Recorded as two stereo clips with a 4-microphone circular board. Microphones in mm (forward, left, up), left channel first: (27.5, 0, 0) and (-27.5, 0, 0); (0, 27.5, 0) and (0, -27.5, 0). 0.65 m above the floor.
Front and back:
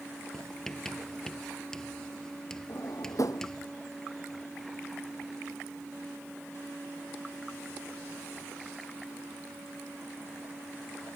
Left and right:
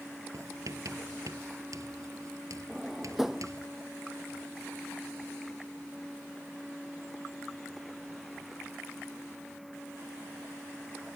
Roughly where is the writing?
Right.